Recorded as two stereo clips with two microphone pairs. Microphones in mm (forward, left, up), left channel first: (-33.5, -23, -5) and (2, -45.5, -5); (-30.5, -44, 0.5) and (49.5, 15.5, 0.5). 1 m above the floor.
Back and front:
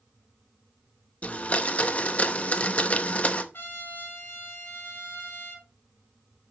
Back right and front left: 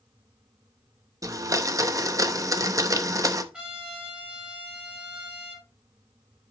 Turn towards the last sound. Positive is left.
turn(degrees=115)